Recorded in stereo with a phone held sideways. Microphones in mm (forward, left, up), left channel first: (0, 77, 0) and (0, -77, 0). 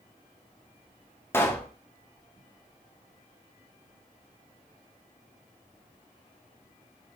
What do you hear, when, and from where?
1.3 s a pop: 15° left (ahead or behind), 0.7 m